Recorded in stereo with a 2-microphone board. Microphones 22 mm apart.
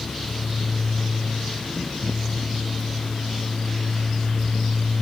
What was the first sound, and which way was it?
Only background noise.